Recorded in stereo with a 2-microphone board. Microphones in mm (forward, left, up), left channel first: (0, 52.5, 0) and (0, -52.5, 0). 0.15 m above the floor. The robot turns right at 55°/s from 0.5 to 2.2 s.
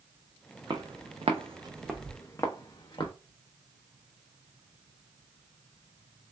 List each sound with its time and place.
0.7 s footsteps: 45° right (ahead or behind), 0.8 m; by 3.1 s 50° left (ahead or behind), 1.0 m